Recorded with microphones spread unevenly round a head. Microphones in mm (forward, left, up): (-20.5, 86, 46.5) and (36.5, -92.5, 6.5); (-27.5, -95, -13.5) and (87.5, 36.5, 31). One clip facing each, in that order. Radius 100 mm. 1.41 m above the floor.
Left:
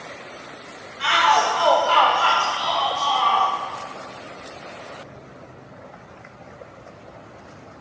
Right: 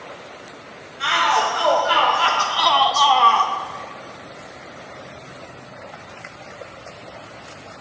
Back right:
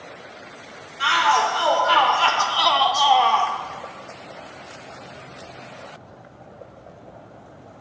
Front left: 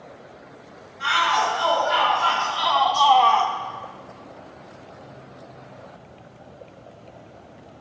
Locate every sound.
1.0 s a shout: 165° right, 1.7 m; by 3.5 s 30° right, 1.0 m